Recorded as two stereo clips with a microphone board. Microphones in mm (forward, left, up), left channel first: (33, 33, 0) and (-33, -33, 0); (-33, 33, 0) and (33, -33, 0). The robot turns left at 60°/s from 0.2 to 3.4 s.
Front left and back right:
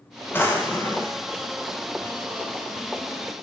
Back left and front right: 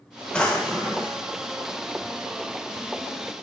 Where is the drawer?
70° left, 0.8 m; by 1.2 s 20° left, 0.8 m.